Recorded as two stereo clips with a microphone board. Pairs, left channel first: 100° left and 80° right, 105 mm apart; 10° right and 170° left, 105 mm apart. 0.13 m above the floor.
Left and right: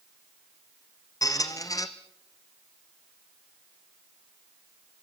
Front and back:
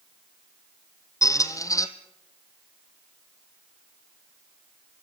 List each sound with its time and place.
1.2 s a squeak: 45° left, 1.6 m